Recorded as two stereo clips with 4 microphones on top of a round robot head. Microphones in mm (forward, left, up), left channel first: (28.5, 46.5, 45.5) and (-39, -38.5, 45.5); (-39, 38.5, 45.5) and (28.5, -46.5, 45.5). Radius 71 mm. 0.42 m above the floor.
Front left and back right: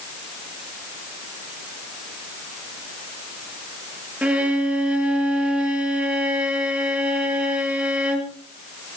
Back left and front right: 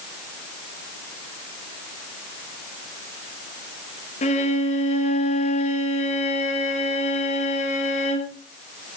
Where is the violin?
150° left, 4.5 m.